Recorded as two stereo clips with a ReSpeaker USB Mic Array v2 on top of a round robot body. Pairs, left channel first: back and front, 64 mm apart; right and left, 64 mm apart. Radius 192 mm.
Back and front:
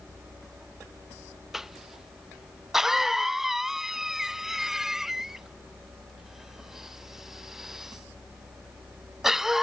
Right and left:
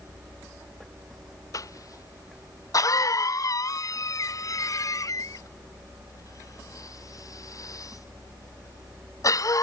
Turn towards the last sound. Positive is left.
turn(degrees=-80)